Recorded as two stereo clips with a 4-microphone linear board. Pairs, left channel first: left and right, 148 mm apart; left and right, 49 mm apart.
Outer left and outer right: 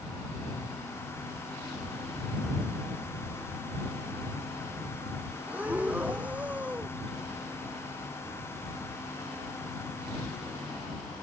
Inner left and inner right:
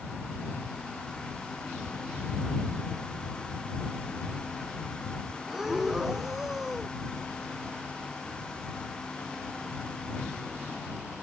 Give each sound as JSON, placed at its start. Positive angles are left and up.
{"t": 5.5, "sound": "breathing", "side_deg": -10}